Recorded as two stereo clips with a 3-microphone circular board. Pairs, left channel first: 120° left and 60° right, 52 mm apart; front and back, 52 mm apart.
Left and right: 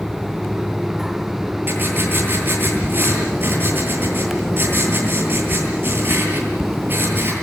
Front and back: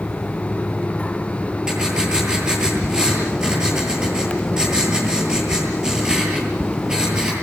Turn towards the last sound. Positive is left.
turn(degrees=-105)